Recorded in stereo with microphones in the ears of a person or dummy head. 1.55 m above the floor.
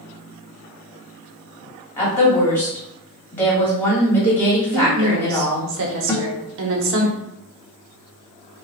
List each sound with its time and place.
2.0 s a woman speaking: 15° left (ahead or behind), 1.7 m
4.7 s a woman speaking: 60° right (ahead or behind), 0.9 m
6.1 s a guitar: 20° left (ahead or behind), 0.8 m